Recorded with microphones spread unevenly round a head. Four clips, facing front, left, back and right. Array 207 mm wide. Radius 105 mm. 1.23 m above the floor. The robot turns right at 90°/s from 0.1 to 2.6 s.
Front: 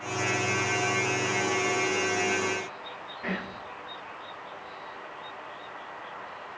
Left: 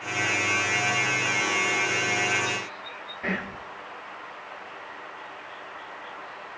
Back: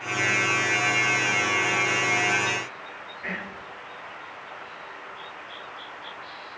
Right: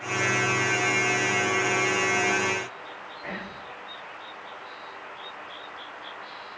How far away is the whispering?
About 0.9 m.